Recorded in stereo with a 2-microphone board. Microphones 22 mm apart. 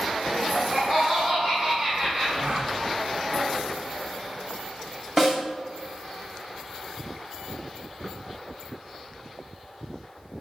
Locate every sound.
0.3 s laughter: 35° right (ahead or behind), 1.9 m; by 2.3 s 55° right (ahead or behind), 3 m
2.4 s a gasp: 60° right (ahead or behind), 1.5 m
5.2 s a snare drum: 20° right (ahead or behind), 2.5 m